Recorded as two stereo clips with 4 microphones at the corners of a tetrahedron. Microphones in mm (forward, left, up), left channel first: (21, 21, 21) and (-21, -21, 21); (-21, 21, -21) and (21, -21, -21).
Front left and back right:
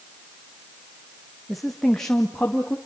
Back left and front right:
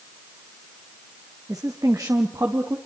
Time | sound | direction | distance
1.5 | a woman speaking | 50° right | 1.7 m